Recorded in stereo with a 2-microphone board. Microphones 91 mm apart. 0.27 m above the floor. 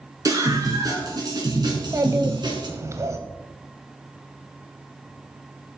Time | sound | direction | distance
0.2 | a scream | 40° right (ahead or behind) | 4 m
1.7 | a child speaking | 30° right (ahead or behind) | 0.9 m